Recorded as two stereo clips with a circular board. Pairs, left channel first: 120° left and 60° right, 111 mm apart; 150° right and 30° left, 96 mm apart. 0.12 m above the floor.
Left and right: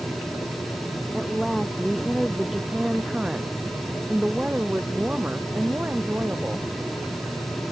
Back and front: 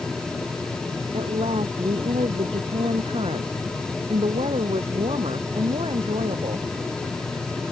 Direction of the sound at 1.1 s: 30° left.